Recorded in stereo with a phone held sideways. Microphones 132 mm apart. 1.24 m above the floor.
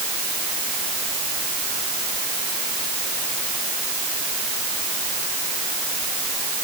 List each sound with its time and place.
Only background noise.